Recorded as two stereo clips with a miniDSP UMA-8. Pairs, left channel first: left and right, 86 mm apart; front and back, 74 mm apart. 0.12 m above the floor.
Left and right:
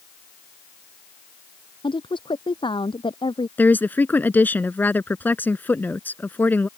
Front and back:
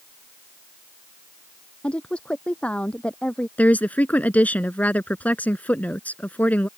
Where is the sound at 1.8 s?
75° left.